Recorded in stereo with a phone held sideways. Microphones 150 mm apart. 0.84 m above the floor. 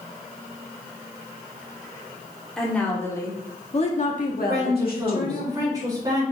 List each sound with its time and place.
2.6 s a woman speaking: 5° left (ahead or behind), 2.5 m; by 5.5 s 65° left (ahead or behind), 2 m
4.5 s a woman speaking: 25° right (ahead or behind), 3.5 m